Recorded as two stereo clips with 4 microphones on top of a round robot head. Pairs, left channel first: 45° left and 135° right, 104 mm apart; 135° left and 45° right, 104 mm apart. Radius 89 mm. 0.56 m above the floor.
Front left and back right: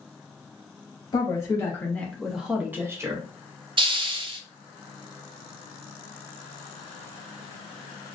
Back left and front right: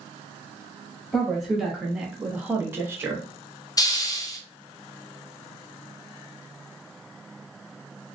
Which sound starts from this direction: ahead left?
A woman speaking, at 1.1 s.